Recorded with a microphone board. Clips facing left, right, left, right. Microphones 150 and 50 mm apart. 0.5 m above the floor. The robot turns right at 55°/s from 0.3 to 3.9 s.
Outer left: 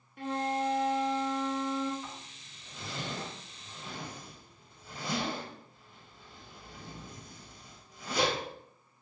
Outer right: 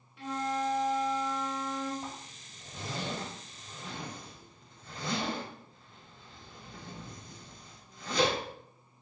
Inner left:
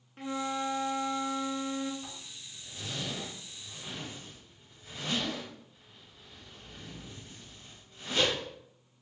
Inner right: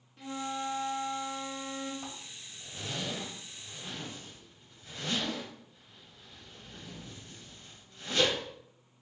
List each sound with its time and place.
0.2 s a flute: 65° left, 0.5 m; by 1.9 s 155° left, 0.5 m
2.0 s a zipper: 75° right (ahead or behind), 1.6 m; by 8.4 s 10° left (ahead or behind), 1.6 m